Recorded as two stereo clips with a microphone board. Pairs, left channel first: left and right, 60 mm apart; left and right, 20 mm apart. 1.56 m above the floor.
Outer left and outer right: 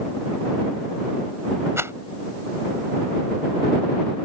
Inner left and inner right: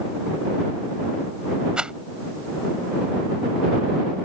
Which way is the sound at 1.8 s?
50° right (ahead or behind).